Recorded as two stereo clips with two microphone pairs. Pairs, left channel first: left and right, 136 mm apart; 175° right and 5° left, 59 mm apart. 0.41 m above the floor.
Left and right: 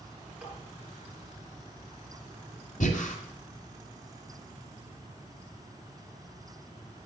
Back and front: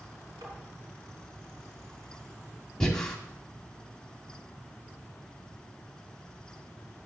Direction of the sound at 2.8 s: 105° left.